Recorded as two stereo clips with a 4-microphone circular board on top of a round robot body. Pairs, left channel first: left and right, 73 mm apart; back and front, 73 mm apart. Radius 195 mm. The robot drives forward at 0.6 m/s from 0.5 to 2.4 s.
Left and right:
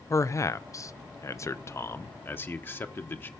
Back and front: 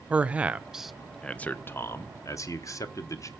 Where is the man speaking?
65° left, 1.0 m; by 3.3 s 145° left, 1.3 m.